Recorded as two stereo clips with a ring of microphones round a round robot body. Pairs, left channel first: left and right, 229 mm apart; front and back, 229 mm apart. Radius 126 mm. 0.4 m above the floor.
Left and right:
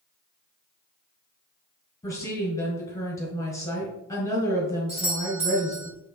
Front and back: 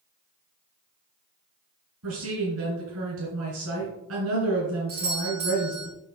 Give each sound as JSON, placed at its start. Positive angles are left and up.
{"t": 2.0, "sound": "a woman speaking", "azimuth_deg": 165, "distance_m": 2.5}
{"t": 4.9, "sound": "a doorbell", "azimuth_deg": -150, "distance_m": 3.0}